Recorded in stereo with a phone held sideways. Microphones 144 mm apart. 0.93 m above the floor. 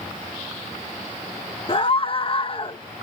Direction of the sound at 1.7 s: 40° left (ahead or behind).